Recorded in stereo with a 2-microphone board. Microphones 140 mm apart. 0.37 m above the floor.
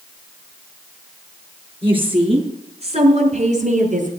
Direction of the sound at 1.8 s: 40° right (ahead or behind).